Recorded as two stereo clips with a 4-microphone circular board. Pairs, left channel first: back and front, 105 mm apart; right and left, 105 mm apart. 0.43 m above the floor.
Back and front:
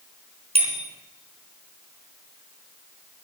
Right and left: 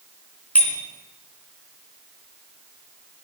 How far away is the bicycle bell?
About 3.5 m.